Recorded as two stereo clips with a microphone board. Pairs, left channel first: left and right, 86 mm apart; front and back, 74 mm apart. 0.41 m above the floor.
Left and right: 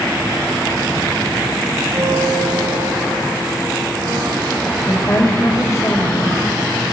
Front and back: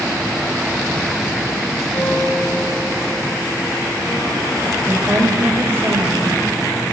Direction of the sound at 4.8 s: 135° left.